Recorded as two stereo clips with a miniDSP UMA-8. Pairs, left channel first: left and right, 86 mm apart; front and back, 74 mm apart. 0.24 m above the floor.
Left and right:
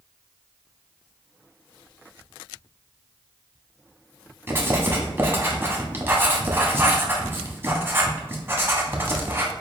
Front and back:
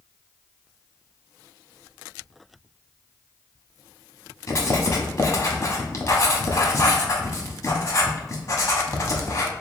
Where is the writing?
30° right, 0.8 m.